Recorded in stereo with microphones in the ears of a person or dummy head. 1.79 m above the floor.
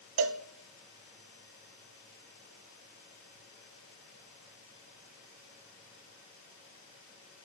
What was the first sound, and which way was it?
A cowbell, 65° right (ahead or behind).